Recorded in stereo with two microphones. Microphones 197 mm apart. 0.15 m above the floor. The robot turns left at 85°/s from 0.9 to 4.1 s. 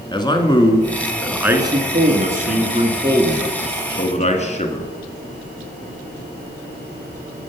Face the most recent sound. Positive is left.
turn(degrees=125)